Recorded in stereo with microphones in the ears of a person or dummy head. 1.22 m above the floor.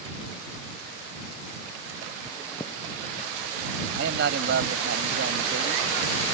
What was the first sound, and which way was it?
Chewing, 10° left (ahead or behind).